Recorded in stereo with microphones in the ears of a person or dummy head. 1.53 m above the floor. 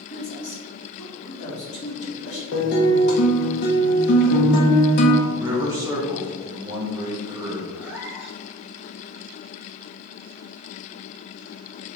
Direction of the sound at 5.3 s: 20° right (ahead or behind).